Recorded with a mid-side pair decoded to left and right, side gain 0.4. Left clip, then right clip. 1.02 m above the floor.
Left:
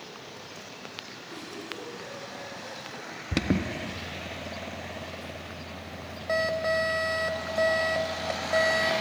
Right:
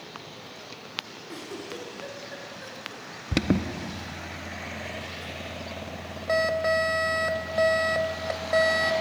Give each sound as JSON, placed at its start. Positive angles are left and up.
{"t": 1.3, "sound": "a giggle", "azimuth_deg": -70, "distance_m": 3.0}
{"t": 3.3, "sound": "an alarm", "azimuth_deg": -15, "distance_m": 0.6}